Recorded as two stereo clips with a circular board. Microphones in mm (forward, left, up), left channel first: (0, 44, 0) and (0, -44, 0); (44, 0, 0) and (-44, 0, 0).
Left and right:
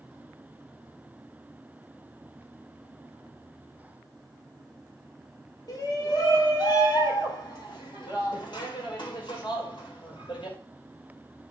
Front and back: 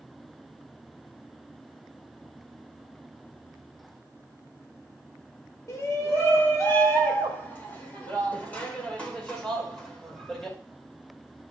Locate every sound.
5.7 s a shout: 50° left, 4.5 m; by 10.6 s 85° left, 5.5 m